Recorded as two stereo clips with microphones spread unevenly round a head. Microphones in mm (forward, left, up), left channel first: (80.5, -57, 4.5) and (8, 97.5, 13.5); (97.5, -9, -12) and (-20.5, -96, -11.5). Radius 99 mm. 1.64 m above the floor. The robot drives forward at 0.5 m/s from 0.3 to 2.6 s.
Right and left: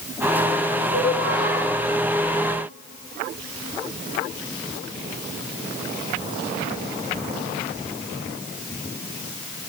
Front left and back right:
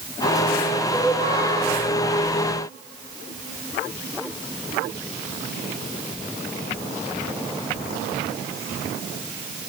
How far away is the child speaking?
About 9 m.